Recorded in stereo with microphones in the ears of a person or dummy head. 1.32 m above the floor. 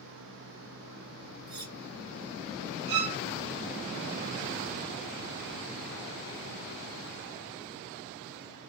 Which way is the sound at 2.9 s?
35° right (ahead or behind).